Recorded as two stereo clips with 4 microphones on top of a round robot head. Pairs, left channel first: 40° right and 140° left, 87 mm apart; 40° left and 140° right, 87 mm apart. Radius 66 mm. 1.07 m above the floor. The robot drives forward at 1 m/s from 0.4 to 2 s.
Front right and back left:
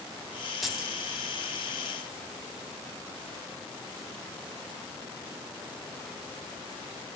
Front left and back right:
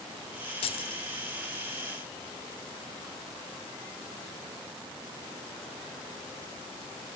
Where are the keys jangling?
50° left, 1.3 m; by 1.0 s 70° left, 1.0 m.